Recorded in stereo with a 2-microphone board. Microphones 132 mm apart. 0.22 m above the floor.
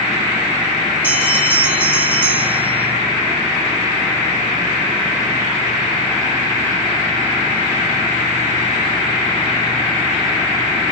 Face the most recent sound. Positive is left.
turn(degrees=-15)  # may be behind; listen again after turning